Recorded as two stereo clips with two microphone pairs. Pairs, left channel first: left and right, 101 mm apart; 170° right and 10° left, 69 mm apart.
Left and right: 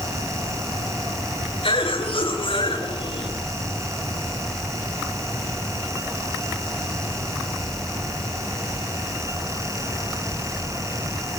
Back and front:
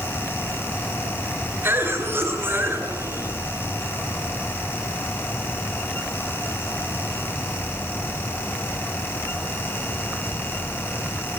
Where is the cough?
65° left, 9.5 m.